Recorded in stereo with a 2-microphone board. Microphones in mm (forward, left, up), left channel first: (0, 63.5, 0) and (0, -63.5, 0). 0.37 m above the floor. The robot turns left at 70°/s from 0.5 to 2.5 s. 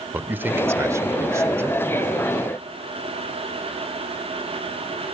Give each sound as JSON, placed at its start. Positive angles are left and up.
{"t": 0.1, "sound": "a man speaking", "side_deg": -15, "distance_m": 1.1}